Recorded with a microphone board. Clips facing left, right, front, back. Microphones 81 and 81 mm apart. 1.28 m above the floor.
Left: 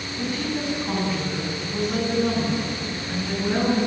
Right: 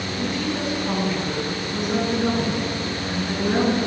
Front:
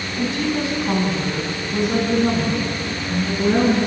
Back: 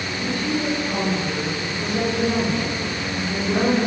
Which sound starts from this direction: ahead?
A woman speaking, at 0.2 s.